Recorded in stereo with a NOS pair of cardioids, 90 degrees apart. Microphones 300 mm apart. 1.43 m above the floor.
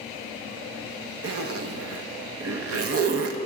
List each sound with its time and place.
1.2 s a zipper: 55° right, 1.2 m